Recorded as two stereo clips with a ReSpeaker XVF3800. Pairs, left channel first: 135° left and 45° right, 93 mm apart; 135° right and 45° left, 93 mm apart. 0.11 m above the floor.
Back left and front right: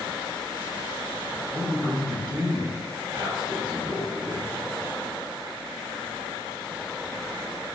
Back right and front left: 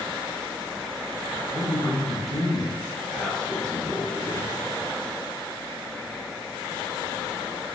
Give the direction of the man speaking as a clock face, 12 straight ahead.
2 o'clock.